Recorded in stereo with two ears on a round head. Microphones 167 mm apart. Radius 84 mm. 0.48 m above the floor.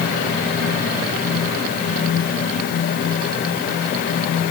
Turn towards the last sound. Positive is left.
No sound to turn to.